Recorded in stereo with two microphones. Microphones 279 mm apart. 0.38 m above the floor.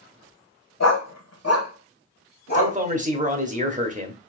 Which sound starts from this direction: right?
A man speaking, at 2.5 s.